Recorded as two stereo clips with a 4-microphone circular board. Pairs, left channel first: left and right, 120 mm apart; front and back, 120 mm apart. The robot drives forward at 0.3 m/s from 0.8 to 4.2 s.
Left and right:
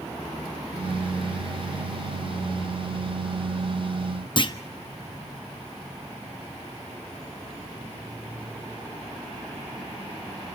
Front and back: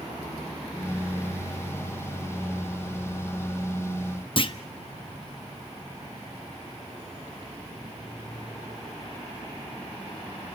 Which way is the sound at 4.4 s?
45° left.